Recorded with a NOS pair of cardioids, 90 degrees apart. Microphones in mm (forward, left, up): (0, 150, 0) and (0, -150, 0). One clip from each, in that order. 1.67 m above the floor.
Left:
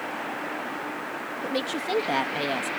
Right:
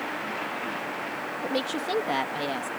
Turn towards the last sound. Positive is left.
turn(degrees=25)